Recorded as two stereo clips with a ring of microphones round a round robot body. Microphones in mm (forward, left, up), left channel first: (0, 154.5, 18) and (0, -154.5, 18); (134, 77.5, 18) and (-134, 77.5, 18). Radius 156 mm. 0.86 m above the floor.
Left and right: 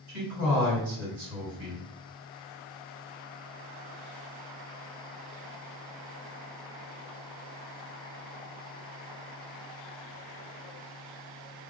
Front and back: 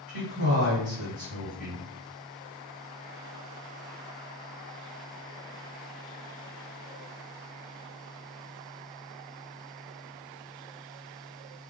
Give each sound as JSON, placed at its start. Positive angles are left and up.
{"t": 0.1, "sound": "a man speaking", "azimuth_deg": -130, "distance_m": 2.0}